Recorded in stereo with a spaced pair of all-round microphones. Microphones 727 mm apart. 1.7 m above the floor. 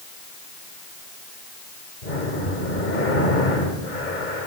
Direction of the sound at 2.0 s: 70° left (ahead or behind).